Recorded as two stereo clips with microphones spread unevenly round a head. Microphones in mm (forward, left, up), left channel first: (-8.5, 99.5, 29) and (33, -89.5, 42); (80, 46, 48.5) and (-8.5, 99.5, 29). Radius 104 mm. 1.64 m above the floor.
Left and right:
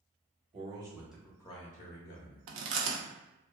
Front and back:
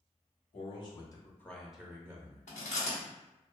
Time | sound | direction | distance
0.5 | a man speaking | 20° right | 0.9 m
2.5 | chewing | 55° right | 0.5 m